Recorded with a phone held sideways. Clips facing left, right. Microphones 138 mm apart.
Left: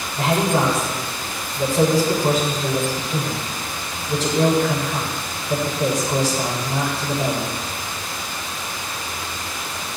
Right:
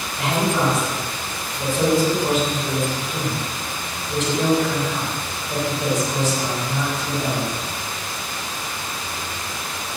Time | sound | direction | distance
0.2 | a man speaking | 35° left (ahead or behind) | 8.5 m